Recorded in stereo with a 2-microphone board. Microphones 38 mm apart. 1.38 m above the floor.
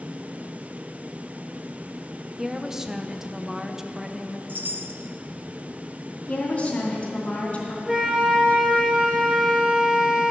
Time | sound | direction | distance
2.4 | a woman speaking | 15° right (ahead or behind) | 0.7 m
4.5 | a chime | 60° right (ahead or behind) | 0.8 m
6.3 | a woman speaking | 45° left (ahead or behind) | 2.5 m
7.9 | a flute | 5° right (ahead or behind) | 1.8 m